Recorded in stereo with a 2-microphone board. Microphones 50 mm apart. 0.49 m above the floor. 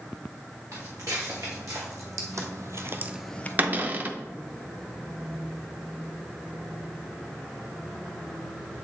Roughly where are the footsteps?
Right.